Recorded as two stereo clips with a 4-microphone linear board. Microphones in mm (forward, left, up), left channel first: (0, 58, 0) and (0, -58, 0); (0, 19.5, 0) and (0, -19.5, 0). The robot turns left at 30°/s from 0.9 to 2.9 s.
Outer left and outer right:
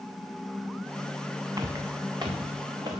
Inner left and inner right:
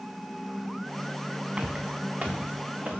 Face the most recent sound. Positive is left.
turn(degrees=-40)  # may be behind; listen again after turning